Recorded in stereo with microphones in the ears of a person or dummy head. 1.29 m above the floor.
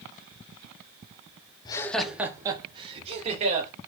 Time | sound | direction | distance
1.6 | laughter | 20° left (ahead or behind) | 0.6 m